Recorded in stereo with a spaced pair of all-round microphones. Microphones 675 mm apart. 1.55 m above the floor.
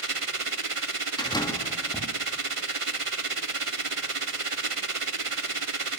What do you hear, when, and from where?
0.0 s a machine running: 50° right (ahead or behind), 1.2 m
1.2 s a door slam: 5° left (ahead or behind), 2.5 m